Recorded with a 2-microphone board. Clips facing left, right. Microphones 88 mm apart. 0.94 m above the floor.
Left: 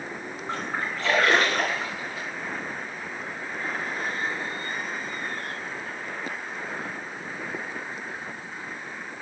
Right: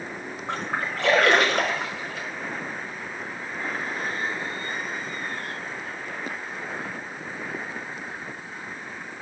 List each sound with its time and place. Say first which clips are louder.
0.5 s a splash: right 2 dB; 65° right (ahead or behind), 0.8 m